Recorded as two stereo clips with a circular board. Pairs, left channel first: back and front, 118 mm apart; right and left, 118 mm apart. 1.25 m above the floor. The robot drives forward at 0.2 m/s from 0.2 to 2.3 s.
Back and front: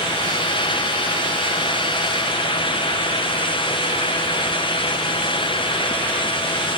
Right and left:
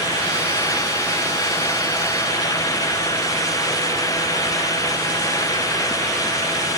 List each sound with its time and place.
Only background noise.